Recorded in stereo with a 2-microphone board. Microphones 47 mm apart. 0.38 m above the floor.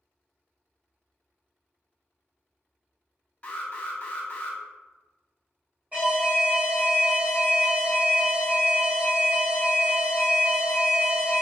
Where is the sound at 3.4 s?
25° left (ahead or behind), 0.6 m.